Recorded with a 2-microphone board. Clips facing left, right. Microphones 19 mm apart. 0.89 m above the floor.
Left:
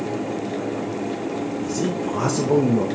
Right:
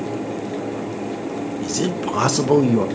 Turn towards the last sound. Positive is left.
turn(degrees=-55)  # may be behind; listen again after turning